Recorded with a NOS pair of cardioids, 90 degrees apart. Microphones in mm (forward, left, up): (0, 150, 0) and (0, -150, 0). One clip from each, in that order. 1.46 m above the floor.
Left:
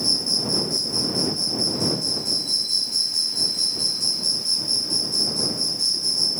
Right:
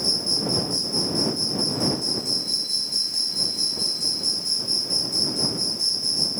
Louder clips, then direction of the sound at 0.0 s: Left 1 dB; 15° left.